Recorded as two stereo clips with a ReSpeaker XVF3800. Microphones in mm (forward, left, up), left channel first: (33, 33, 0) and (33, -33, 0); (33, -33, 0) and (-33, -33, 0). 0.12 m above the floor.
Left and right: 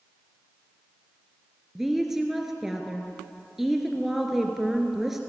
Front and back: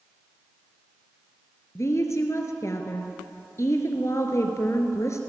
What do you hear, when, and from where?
1.8 s a woman speaking: 5° right, 2.5 m